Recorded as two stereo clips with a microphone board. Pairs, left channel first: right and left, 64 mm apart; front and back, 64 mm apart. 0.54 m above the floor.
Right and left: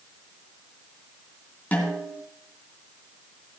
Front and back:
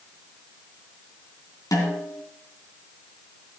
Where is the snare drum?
25° right, 3 m.